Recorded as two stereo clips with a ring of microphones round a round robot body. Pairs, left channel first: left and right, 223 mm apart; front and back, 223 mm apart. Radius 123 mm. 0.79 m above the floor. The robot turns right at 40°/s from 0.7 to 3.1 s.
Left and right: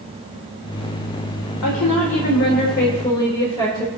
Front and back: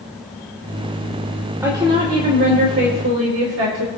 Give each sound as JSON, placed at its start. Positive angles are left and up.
{"t": 1.6, "sound": "a woman speaking", "azimuth_deg": 100, "distance_m": 2.0}